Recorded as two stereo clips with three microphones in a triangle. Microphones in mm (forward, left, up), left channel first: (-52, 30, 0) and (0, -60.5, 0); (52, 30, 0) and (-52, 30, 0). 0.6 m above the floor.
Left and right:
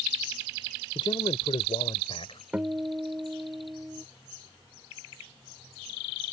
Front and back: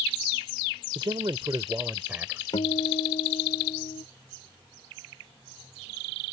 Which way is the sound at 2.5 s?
15° left.